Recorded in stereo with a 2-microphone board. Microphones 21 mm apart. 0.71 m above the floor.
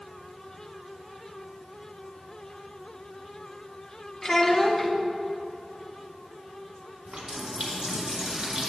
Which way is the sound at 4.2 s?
20° left (ahead or behind).